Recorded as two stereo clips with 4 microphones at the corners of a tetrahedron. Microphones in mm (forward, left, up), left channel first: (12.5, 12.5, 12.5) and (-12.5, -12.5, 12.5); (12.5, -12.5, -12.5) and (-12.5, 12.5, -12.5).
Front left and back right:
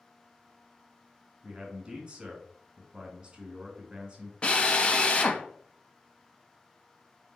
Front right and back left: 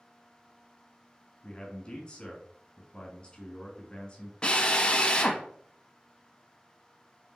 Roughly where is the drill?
Ahead.